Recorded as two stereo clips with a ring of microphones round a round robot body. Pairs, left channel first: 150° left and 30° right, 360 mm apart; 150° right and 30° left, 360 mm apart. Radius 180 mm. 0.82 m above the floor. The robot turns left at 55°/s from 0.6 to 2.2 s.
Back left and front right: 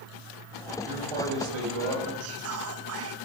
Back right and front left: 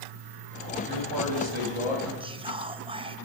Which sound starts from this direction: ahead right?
Whispering, at 2.2 s.